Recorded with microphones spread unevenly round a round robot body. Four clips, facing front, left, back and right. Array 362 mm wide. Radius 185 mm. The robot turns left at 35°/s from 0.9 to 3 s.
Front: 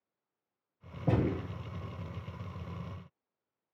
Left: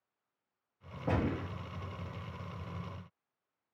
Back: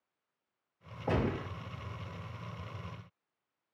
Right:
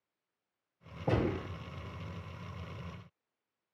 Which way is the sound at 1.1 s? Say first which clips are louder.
Right 2 dB, front 2 dB; 5° right.